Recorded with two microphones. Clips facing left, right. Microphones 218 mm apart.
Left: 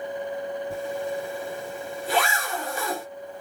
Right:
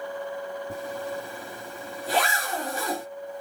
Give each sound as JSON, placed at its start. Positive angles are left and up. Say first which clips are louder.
{"t": 0.7, "sound": "a zipper", "louder": "left 4 dB", "side_deg": -45, "distance_m": 2.5}